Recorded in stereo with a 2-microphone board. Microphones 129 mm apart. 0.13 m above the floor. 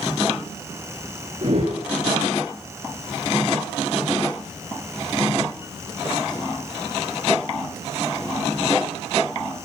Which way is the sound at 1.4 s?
50° right (ahead or behind).